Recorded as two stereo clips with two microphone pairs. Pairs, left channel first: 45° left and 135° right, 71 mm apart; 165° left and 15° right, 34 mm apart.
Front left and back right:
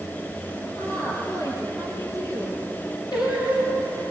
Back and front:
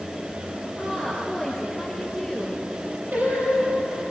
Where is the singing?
25° left, 7 m.